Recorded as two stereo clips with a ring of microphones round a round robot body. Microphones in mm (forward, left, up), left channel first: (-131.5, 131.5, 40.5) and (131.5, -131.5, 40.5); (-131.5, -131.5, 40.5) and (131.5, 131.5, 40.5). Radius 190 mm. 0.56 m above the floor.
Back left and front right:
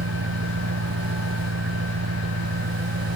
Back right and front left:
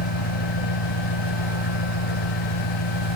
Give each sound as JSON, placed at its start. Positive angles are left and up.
{"t": 0.0, "sound": "an engine running", "azimuth_deg": -105}